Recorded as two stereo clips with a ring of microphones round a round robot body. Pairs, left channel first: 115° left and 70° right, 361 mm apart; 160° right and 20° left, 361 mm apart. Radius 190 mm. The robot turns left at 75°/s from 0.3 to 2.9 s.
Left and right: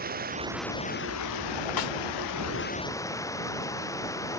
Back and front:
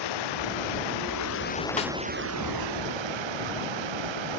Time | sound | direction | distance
0.0 | running water | 135° right | ?
1.8 | a snare drum | 135° left | ?